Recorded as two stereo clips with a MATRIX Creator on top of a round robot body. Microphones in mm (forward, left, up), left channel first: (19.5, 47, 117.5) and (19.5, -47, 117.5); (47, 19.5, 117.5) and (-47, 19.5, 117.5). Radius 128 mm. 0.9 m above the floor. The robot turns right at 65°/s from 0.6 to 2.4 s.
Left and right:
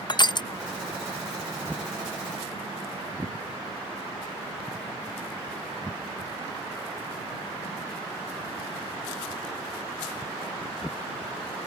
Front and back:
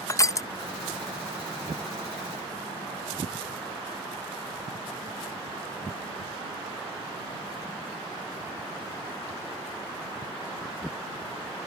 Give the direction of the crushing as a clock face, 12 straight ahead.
10 o'clock.